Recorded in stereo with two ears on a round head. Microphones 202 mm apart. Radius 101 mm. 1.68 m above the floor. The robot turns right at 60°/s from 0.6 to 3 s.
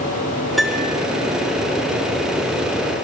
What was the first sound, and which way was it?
A piano, centre (ahead or behind).